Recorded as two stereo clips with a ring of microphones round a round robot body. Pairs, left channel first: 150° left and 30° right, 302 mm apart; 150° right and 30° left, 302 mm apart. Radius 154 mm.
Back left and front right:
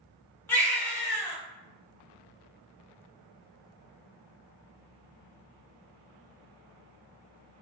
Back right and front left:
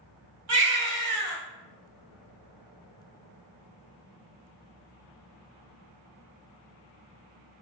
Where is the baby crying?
65° left, 1.0 m.